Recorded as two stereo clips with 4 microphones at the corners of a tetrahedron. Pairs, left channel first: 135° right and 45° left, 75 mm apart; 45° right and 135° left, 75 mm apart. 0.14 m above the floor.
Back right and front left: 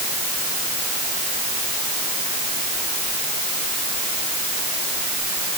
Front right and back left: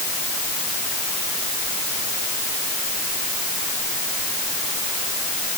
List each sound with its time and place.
Only background noise.